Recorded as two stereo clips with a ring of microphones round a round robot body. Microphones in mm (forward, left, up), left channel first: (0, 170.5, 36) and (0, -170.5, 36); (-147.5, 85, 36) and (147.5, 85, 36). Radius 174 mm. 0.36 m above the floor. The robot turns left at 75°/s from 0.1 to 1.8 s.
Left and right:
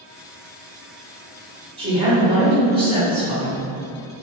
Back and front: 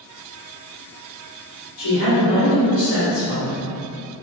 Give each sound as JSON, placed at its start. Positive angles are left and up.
{"t": 1.8, "sound": "a woman speaking", "azimuth_deg": -155, "distance_m": 1.9}